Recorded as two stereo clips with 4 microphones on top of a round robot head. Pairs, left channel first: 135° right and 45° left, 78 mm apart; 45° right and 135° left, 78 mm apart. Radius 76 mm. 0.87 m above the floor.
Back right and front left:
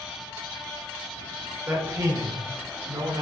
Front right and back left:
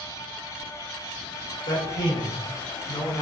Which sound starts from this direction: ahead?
A man speaking, at 1.7 s.